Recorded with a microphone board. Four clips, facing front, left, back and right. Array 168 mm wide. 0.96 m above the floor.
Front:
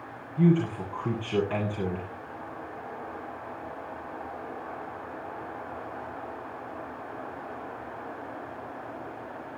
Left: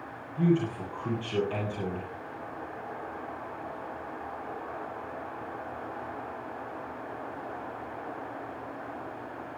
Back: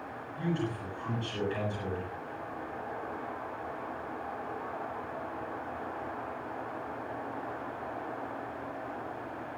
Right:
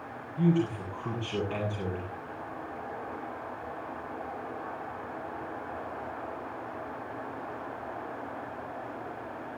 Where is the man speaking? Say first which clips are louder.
Left 1 dB, front 10 dB; 5° left, 8 m.